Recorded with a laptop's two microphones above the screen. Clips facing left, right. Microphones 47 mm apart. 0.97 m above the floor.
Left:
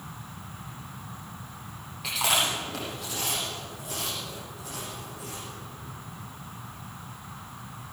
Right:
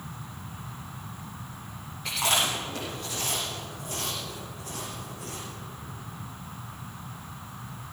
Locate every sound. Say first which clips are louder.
2.0 s chewing: even; 85° left, 6.5 m